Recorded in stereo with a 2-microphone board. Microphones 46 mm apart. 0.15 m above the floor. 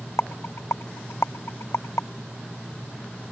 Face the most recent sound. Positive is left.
turn(degrees=80)